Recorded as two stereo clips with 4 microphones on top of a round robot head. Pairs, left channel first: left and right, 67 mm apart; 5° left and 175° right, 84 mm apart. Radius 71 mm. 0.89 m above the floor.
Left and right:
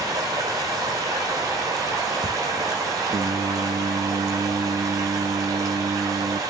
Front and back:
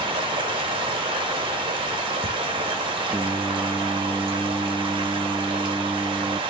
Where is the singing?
105° right, 0.7 m.